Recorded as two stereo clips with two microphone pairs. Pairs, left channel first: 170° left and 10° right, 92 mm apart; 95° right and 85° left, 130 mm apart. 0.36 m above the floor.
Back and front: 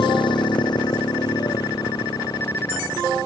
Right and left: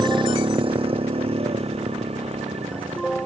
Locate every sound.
0.0 s a motorcycle: 140° left; by 3.3 s 125° left